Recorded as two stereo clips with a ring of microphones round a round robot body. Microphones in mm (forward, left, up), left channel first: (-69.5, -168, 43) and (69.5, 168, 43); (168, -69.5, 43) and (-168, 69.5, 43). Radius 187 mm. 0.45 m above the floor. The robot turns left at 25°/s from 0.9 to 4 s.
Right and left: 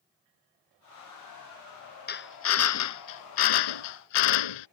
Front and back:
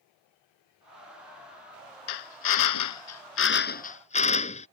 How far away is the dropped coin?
I don't hear a dropped coin.